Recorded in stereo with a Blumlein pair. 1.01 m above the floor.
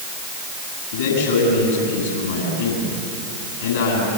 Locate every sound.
0.9 s a man speaking: 60° left, 9 m